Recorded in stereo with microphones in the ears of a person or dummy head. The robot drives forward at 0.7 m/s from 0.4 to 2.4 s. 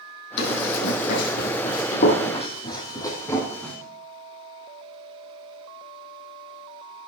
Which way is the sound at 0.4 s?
65° left (ahead or behind).